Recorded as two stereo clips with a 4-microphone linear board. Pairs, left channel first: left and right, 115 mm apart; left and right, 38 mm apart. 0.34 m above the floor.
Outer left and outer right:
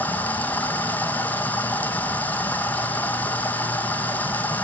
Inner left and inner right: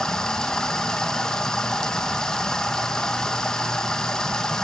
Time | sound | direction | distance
0.0 | running water | 15° left (ahead or behind) | 1.1 m